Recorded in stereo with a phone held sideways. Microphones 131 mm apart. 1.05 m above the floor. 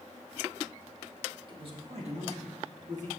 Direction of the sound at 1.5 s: 40° right (ahead or behind).